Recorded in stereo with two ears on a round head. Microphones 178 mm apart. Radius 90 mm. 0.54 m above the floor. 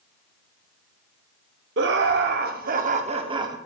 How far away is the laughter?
About 1.2 m.